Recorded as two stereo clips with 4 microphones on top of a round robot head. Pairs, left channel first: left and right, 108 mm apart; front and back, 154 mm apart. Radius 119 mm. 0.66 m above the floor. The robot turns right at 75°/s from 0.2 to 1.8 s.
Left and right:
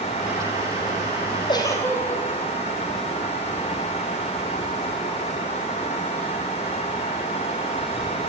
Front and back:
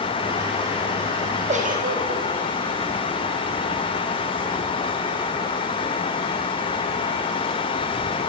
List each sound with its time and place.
1.5 s a giggle: 135° left, 4.5 m; by 2.2 s 155° left, 4.5 m